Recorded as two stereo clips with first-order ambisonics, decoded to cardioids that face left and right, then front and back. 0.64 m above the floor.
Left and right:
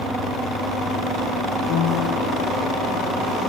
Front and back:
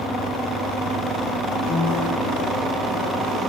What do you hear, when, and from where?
1.7 s a piano: 50° left, 7 m